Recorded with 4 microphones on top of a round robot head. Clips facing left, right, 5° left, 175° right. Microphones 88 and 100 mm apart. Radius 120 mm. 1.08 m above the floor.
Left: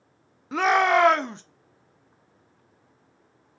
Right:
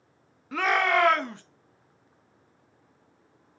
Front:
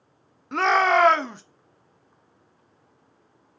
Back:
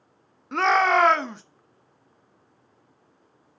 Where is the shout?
90° left, 0.6 m.